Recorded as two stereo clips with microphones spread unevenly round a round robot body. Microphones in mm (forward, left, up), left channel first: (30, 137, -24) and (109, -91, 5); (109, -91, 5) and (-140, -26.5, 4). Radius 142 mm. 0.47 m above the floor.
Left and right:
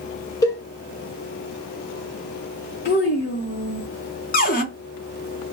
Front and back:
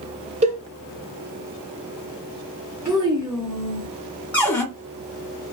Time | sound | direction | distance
0.4 | a cowbell | 145° left | 0.5 m
2.9 | a child speaking | 85° left | 0.5 m
4.3 | a cupboard door | 70° left | 0.6 m